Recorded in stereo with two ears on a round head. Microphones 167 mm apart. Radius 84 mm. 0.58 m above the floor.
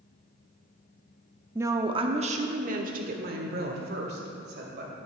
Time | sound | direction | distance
1.6 | a woman speaking | 10° right (ahead or behind) | 0.6 m